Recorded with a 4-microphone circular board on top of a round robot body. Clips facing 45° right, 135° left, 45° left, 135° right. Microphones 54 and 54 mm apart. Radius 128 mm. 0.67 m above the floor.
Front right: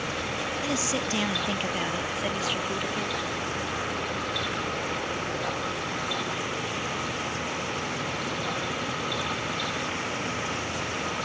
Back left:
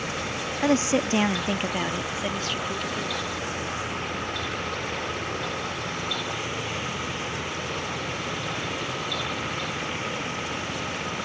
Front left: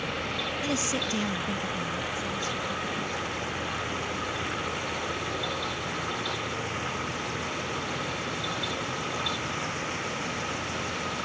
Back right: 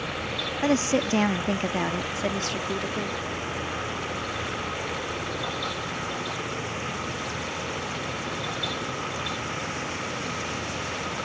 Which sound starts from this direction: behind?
A woman speaking, at 0.6 s.